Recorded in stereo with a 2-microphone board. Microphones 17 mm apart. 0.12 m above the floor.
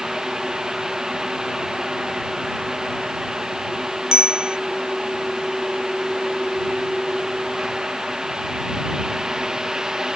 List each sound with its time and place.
4.1 s a bicycle bell: 55° right (ahead or behind)